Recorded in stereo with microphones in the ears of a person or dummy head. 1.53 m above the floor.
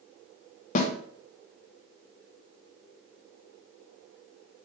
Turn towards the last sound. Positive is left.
turn(degrees=40)  # may be behind; listen again after turning